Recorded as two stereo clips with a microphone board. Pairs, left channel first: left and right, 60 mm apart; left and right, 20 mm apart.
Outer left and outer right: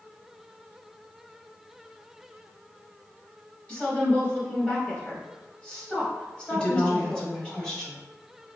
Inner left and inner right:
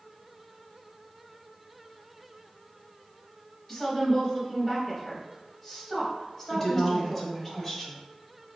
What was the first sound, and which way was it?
A woman speaking, 20° left (ahead or behind).